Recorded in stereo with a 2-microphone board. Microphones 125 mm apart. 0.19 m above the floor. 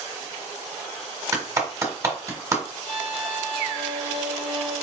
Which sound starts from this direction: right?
A clap, at 1.3 s.